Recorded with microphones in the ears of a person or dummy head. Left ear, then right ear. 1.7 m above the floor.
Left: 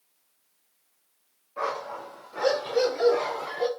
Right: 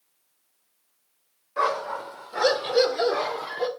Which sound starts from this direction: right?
A dog barking, at 1.6 s.